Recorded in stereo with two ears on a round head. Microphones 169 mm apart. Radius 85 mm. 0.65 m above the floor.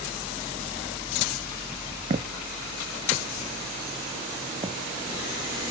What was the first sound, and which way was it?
Footsteps, 35° right (ahead or behind).